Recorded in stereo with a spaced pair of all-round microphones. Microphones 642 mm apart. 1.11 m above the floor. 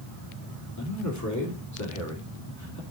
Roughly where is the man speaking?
Left.